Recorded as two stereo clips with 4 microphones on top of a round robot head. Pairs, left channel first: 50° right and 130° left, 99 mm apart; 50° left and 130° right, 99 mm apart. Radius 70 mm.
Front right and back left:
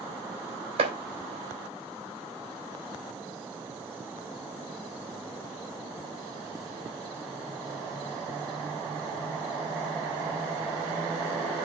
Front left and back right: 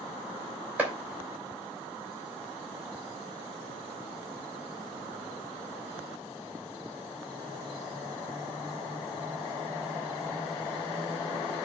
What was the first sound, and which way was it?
Chopping, 155° left.